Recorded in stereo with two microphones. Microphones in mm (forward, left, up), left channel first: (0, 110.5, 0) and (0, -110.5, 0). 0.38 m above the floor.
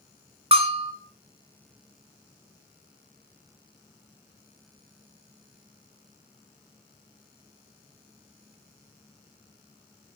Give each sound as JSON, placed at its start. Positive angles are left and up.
{"t": 0.5, "sound": "a bell", "side_deg": -25, "distance_m": 1.1}